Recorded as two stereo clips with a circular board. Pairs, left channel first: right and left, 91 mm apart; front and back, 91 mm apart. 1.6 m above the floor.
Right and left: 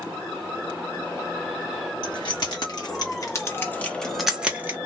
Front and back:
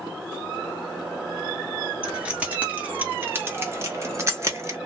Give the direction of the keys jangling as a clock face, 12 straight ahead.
4 o'clock.